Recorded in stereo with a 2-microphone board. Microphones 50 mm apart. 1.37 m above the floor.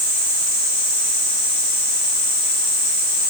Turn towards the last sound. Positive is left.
No sound to turn to.